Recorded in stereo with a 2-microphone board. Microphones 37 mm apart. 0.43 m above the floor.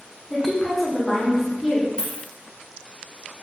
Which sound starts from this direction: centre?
A woman speaking, at 0.3 s.